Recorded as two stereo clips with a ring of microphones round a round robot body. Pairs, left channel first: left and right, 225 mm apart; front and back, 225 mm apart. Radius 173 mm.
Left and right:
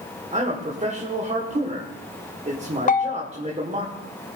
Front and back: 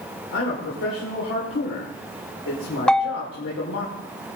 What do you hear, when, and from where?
0.3 s a man speaking: 30° right, 2 m
2.9 s a bell: 85° left, 0.7 m